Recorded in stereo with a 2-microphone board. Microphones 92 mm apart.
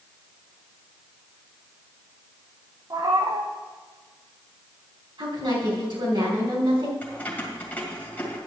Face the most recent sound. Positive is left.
turn(degrees=20)  # may be behind; listen again after turning